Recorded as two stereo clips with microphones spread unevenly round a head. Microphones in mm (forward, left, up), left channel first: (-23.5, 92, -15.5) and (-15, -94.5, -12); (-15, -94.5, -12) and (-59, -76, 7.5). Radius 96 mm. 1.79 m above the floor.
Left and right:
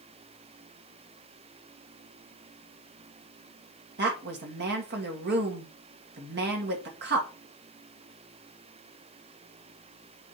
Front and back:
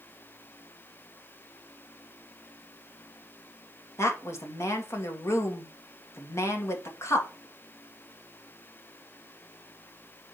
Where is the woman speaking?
50° right, 2.0 m.